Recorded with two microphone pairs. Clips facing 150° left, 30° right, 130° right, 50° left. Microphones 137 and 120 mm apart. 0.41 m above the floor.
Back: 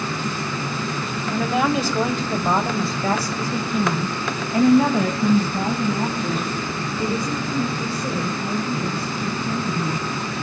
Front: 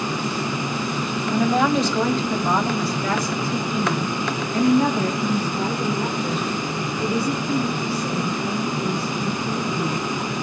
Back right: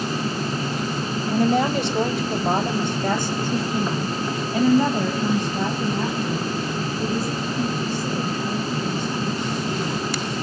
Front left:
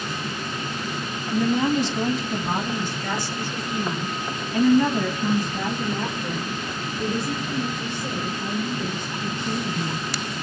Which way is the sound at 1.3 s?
115° right.